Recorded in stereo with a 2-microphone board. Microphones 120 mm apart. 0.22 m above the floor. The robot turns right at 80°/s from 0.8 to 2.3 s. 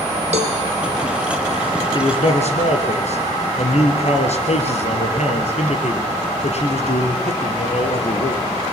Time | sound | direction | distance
0.3 | a cowbell | 60° right (ahead or behind) | 3 m
1.9 | a man speaking | 40° left (ahead or behind) | 3.5 m